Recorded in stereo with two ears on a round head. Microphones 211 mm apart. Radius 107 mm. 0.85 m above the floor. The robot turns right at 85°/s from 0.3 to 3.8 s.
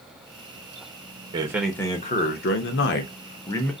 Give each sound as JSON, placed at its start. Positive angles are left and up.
{"t": 1.3, "sound": "a man speaking", "azimuth_deg": -25, "distance_m": 0.7}